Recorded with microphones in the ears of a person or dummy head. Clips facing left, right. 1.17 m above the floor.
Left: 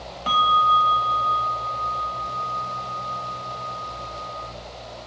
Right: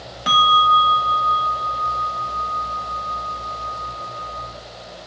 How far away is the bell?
About 0.8 m.